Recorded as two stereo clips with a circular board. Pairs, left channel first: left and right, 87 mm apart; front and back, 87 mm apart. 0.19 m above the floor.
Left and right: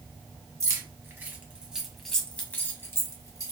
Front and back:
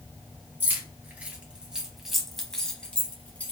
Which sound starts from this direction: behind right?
Keys jangling, at 0.6 s.